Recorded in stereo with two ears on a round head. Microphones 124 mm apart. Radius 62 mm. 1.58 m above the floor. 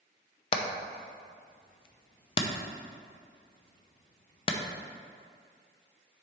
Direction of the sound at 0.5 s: 40° left (ahead or behind).